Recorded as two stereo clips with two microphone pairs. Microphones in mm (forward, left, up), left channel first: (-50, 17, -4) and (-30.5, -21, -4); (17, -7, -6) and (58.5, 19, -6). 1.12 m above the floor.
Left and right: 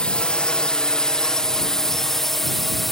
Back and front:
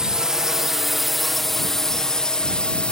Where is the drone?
90° left; by 2.9 s 160° right.